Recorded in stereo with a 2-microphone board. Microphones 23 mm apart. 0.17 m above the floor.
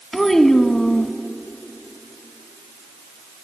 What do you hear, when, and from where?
0.1 s a child speaking: 15° left (ahead or behind), 0.9 m